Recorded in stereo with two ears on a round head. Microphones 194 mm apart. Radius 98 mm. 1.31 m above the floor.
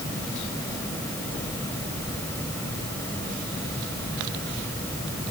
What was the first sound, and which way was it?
Only background noise.